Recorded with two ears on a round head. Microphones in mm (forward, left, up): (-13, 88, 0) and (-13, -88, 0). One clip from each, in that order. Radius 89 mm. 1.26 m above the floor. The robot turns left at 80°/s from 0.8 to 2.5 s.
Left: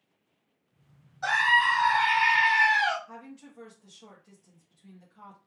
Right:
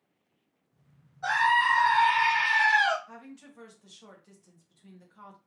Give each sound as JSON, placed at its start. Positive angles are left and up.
{"t": 1.2, "sound": "a scream", "azimuth_deg": 100, "distance_m": 1.5}
{"t": 3.1, "sound": "a woman speaking", "side_deg": -25, "distance_m": 1.0}